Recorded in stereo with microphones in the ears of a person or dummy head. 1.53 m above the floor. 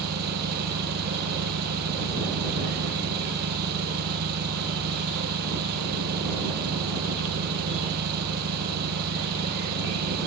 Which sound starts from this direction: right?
An engine running, at 0.0 s.